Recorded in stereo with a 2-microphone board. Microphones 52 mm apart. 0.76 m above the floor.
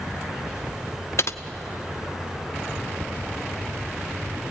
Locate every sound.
1.2 s typing on a keyboard: 60° left (ahead or behind), 0.6 m
3.0 s ticking: 55° right (ahead or behind), 1.0 m